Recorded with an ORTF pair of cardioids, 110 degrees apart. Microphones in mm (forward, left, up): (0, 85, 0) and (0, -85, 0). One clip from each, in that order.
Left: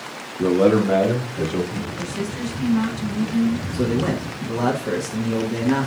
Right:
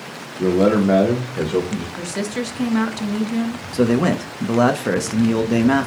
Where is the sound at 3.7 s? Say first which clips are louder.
Right 7 dB; 40° right, 0.6 m.